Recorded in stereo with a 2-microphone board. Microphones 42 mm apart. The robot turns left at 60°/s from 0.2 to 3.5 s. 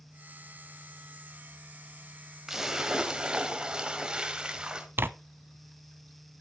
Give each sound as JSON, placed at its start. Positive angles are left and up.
{"t": 2.5, "sound": "a splash", "side_deg": -10, "distance_m": 1.5}
{"t": 5.0, "sound": "tearing paper", "side_deg": -65, "distance_m": 0.6}